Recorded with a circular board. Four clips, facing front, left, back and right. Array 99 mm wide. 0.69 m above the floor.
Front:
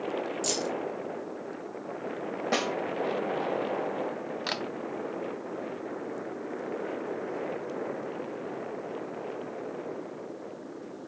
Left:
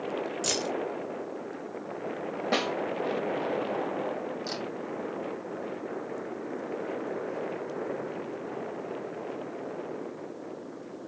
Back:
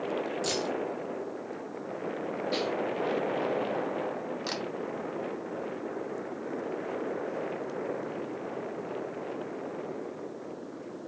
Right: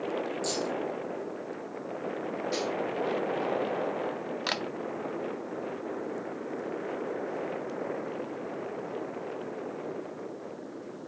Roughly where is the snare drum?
Ahead left.